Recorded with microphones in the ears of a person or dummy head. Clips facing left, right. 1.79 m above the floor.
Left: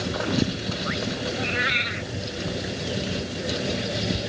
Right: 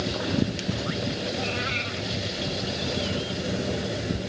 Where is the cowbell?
I don't hear a cowbell.